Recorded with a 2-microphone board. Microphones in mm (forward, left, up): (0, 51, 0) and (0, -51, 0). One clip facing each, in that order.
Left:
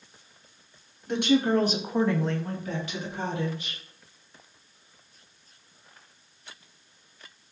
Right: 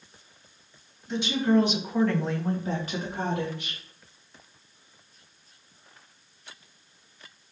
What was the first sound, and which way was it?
A woman speaking, 65° left (ahead or behind).